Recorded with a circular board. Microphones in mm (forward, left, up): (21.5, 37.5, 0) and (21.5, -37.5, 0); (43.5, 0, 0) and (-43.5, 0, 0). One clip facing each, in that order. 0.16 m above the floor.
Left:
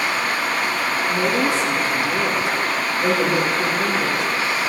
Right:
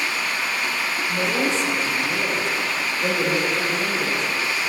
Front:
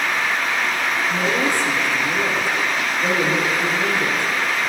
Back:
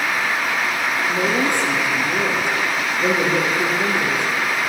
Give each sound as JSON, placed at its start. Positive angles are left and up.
{"t": 1.1, "sound": "a woman speaking", "azimuth_deg": 165, "distance_m": 3.0}